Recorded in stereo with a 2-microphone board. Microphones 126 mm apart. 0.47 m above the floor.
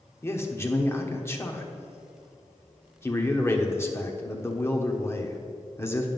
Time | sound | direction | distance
0.2 | a man speaking | 20° left (ahead or behind) | 1.0 m